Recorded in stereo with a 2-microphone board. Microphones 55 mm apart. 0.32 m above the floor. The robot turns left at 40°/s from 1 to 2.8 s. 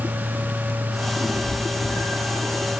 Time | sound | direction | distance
1.2 | a cat meowing | 85° left | 7 m